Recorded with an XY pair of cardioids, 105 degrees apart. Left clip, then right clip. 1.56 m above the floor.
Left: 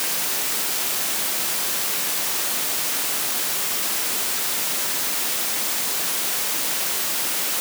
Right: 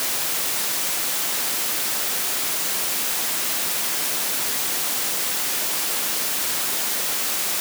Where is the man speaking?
No man speaking in this recording.